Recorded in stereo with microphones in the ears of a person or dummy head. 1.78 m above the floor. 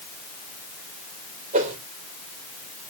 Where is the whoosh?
40° right (ahead or behind), 3 m.